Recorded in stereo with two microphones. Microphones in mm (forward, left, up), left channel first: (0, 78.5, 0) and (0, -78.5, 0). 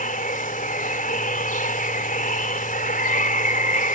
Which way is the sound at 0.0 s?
60° left (ahead or behind).